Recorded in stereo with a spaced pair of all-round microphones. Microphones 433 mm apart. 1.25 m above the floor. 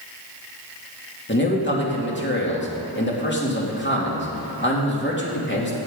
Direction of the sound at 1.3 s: 25° left (ahead or behind).